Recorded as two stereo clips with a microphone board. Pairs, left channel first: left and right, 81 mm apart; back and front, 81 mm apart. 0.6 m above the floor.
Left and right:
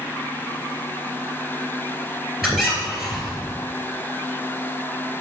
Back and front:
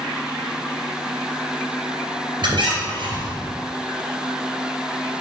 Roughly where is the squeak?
Ahead.